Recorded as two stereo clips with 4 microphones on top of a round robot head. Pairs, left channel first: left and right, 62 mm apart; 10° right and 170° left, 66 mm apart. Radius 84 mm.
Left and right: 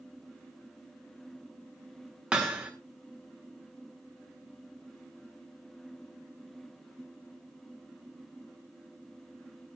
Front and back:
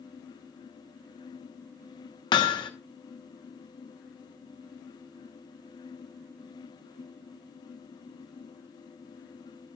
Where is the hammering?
10° right, 1.2 m.